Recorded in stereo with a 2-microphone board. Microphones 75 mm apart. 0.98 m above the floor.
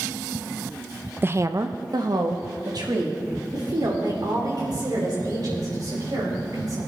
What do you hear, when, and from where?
1.2 s a woman speaking: 25° right (ahead or behind), 0.5 m; by 6.8 s 60° right (ahead or behind), 5.5 m